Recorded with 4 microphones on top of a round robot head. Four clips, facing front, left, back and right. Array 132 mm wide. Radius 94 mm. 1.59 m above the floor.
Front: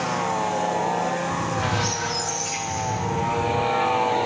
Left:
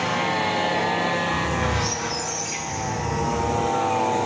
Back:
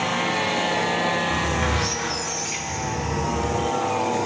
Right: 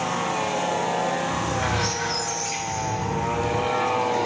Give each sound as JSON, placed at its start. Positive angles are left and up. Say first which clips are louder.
{"t": 1.3, "sound": "a squeak", "louder": "left 1 dB, back 1 dB", "azimuth_deg": 180, "distance_m": 1.1}